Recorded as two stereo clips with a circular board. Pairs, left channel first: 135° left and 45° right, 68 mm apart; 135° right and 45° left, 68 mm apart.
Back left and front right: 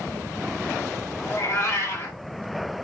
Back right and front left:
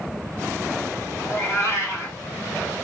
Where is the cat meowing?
Straight behind, 2 m.